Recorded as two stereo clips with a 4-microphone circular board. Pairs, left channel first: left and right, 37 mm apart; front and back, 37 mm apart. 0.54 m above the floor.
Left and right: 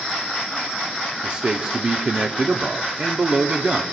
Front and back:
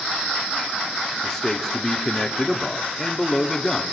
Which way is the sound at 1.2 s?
65° right.